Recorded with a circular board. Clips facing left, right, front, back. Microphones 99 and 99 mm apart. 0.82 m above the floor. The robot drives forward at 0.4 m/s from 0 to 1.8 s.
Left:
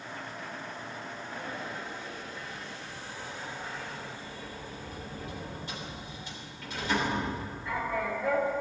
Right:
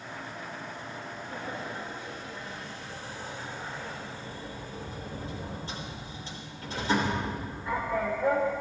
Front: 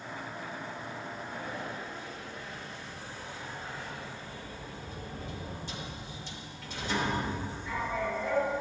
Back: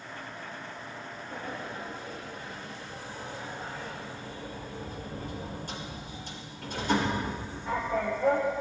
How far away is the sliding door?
About 3.5 m.